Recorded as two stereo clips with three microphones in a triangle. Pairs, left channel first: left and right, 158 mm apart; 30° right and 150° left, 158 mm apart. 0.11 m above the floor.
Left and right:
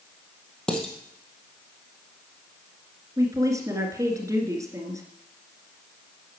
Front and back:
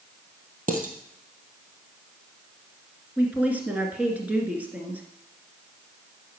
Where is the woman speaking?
140° right, 1.8 m.